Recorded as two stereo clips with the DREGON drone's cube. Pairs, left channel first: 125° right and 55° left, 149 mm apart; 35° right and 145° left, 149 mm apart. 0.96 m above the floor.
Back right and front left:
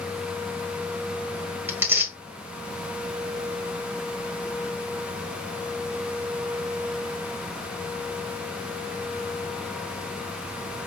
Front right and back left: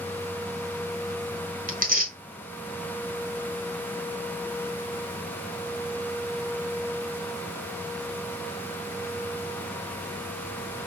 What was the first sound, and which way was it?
Tearing paper, 130° left.